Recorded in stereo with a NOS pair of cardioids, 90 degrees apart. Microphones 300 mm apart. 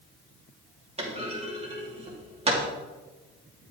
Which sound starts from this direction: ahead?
A clunk, at 1.0 s.